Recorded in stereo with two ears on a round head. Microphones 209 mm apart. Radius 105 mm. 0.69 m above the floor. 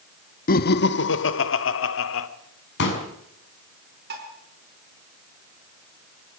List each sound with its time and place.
0.5 s laughter: 40° left (ahead or behind), 0.9 m; by 2.3 s 65° left (ahead or behind), 2 m
2.8 s a pop: 55° left (ahead or behind), 6 m
4.1 s dishes clattering: 45° right (ahead or behind), 6 m